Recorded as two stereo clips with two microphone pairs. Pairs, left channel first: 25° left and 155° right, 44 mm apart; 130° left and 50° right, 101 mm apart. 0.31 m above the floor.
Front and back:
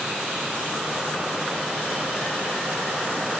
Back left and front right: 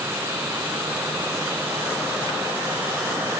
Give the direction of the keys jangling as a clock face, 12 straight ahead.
No keys jangling in this recording.